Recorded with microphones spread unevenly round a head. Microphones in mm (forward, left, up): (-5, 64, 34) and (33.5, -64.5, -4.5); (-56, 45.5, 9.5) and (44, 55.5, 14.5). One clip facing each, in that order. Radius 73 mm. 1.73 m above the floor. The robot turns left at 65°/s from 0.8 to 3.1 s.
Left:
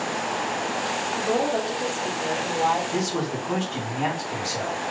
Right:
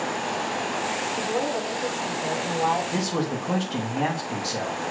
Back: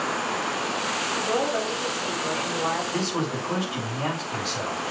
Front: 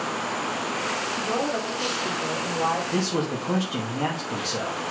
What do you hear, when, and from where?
1.1 s a woman speaking: 110° left, 4.5 m; by 2.8 s straight ahead, 4.5 m
2.9 s a man speaking: 15° right, 3 m; by 4.8 s 25° right, 3 m